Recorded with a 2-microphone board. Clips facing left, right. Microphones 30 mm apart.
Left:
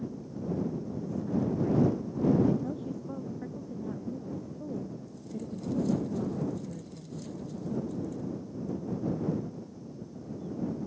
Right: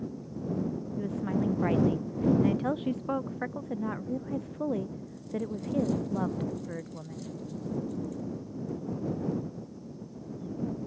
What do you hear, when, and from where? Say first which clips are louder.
1.0 s a woman speaking: right 1 dB; 65° right (ahead or behind)